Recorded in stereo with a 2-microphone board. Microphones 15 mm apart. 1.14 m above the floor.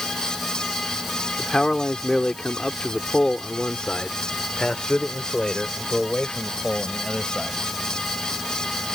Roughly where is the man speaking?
Left.